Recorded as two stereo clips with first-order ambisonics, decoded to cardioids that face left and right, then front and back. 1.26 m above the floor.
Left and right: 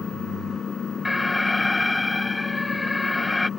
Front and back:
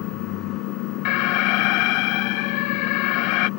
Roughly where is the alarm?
Ahead.